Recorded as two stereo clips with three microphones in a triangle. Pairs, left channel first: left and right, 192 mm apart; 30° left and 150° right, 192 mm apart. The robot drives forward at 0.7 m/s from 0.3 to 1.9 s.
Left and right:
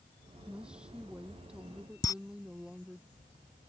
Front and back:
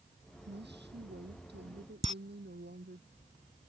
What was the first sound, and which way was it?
A woman speaking, 175° right.